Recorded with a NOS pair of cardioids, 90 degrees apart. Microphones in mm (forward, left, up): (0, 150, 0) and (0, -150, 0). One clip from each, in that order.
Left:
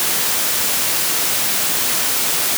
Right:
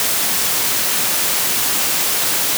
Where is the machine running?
No machine running in this recording.